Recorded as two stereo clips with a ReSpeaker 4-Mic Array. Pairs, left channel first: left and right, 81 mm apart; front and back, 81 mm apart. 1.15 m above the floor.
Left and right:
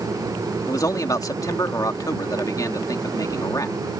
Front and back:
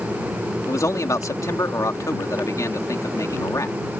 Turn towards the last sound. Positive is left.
turn(degrees=45)